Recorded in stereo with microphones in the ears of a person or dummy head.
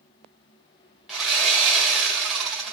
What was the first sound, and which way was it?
Sawing, 5° right (ahead or behind).